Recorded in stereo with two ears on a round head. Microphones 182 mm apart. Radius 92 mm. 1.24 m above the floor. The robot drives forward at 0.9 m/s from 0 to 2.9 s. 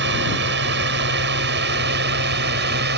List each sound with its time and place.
0.0 s a drone: 60° right (ahead or behind); by 3.0 s 55° right (ahead or behind)